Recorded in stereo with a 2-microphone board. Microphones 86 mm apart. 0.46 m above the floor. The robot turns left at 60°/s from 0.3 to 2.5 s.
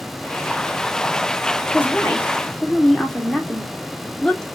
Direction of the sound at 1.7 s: 25° left (ahead or behind).